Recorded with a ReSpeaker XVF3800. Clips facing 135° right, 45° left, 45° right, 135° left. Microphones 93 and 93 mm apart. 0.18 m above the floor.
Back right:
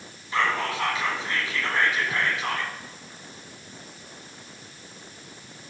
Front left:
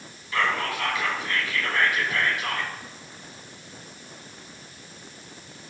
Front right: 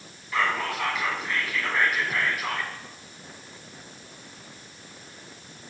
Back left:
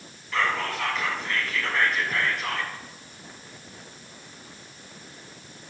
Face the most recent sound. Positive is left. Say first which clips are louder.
# back right 1 dB, even
turn(degrees=-120)